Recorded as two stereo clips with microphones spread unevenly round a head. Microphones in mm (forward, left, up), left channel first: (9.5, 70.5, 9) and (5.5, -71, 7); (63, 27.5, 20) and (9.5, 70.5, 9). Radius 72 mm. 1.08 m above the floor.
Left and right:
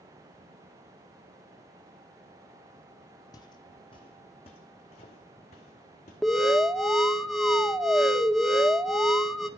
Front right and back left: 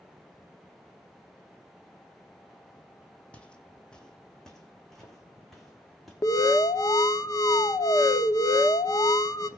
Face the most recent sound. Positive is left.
turn(degrees=0)